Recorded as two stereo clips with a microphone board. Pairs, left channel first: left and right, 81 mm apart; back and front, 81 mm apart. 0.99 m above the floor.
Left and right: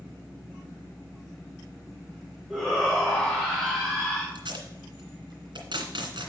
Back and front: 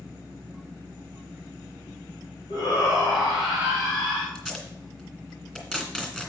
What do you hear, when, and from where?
2.5 s a shout: 175° left, 2 m
4.3 s tape being pulled: 95° right, 2 m